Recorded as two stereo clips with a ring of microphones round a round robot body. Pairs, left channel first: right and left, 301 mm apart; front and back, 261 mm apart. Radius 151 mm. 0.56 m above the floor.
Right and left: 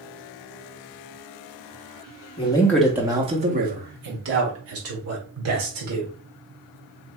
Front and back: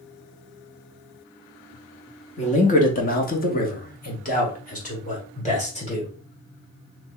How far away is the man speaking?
About 0.8 m.